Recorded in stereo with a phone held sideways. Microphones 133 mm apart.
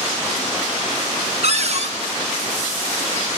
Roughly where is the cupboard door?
Right.